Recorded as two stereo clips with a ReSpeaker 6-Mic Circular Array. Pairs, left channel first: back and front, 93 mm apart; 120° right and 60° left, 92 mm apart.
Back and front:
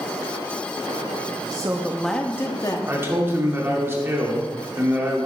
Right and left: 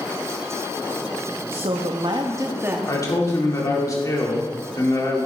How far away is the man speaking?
About 2.5 m.